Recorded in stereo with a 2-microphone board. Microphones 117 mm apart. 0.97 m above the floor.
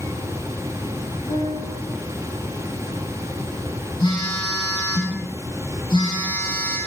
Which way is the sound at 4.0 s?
40° left (ahead or behind).